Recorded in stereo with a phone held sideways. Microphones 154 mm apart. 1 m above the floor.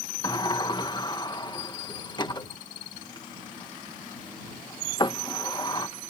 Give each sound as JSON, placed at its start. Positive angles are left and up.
{"t": 0.2, "sound": "a sliding door", "side_deg": 30}